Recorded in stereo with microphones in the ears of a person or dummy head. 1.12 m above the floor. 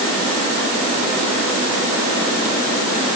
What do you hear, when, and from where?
Only background noise.